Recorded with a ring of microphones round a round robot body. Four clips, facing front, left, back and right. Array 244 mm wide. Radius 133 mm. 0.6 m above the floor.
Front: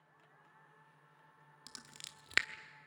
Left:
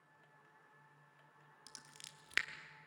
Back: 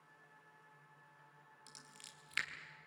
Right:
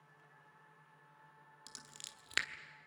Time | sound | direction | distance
1.7 | scissors | 10° right | 1.2 m